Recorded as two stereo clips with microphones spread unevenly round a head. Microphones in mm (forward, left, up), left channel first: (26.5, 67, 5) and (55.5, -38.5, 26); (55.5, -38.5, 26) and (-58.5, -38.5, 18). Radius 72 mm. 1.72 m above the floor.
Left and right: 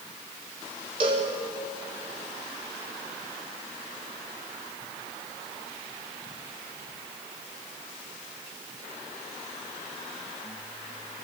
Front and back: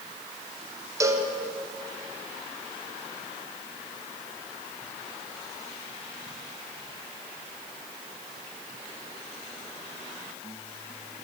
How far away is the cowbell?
About 1.4 m.